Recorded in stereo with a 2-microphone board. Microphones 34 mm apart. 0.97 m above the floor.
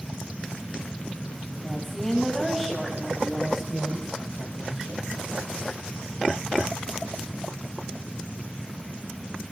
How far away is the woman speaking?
About 6 m.